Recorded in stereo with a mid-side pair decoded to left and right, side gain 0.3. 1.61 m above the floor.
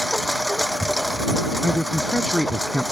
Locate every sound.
0.0 s a lawn mower: straight ahead
1.6 s a man speaking: 5° left